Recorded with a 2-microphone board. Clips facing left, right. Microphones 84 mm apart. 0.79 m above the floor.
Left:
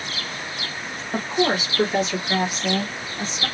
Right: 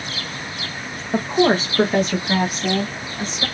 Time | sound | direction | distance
1.1 | a woman speaking | 10° right (ahead or behind) | 0.6 m